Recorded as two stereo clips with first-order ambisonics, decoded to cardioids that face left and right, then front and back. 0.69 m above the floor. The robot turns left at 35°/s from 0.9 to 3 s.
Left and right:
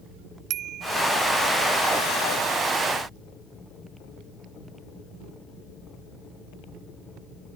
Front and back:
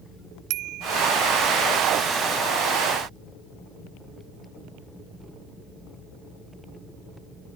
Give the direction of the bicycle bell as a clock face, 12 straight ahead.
5 o'clock.